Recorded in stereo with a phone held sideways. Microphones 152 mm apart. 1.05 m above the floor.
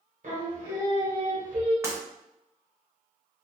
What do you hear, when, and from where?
0.2 s singing: 55° right (ahead or behind), 1.1 m
1.8 s breaking glass: 15° right (ahead or behind), 0.7 m